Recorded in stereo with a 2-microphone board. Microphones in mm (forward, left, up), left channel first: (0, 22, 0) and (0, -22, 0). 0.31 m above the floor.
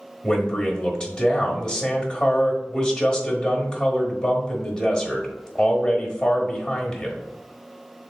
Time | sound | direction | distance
0.2 | a man speaking | 25° left (ahead or behind) | 1.1 m